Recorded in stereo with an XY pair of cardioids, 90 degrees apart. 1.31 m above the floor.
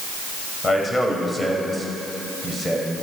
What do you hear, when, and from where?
0.6 s a man speaking: 25° left, 6.5 m; by 3.0 s 5° left, 6.5 m